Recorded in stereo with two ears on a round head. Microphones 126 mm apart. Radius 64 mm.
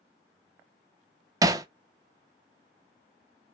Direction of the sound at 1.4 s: 25° right (ahead or behind).